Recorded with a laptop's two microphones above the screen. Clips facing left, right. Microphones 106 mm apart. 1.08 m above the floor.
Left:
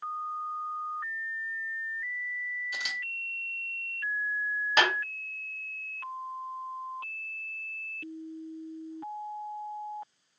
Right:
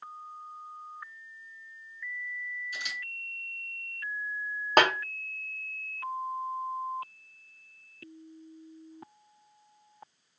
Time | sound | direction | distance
2.7 | a camera shutter | 70° left (ahead or behind) | 1.5 m
4.8 | a snare drum | 45° right (ahead or behind) | 0.6 m